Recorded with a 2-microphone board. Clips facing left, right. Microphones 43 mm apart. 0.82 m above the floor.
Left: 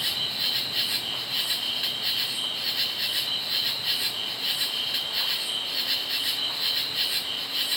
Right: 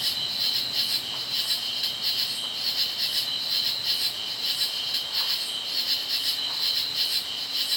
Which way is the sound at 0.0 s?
25° left (ahead or behind).